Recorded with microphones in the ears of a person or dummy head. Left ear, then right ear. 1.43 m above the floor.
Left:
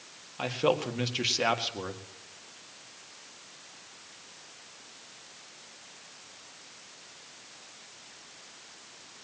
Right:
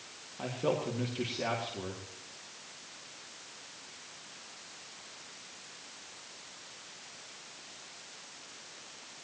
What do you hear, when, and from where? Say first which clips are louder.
0.4 s a man speaking: left 5 dB; 65° left (ahead or behind), 2 m